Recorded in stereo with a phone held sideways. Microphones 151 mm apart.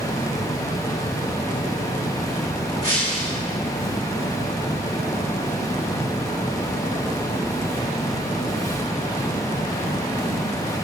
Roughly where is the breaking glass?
Left.